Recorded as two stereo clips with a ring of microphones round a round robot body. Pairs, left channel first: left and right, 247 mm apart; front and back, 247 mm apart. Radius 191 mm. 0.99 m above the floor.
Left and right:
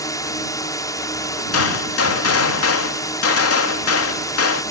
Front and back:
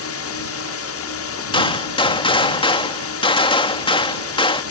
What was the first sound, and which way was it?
A drone, 15° left.